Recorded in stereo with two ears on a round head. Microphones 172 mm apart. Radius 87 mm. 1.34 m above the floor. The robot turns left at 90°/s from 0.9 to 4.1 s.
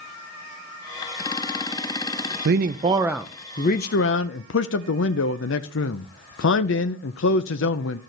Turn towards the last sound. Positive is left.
turn(degrees=100)